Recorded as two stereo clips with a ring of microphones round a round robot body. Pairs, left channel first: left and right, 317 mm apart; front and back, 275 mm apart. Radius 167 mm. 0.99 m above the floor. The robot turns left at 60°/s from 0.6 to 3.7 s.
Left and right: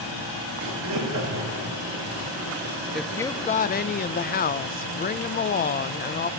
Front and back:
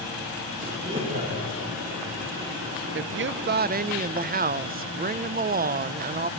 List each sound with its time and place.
0.6 s laughter: 85° right, 5 m; by 1.6 s 145° right, 5 m
3.0 s a woman speaking: 175° right, 0.5 m; by 6.3 s 140° left, 0.5 m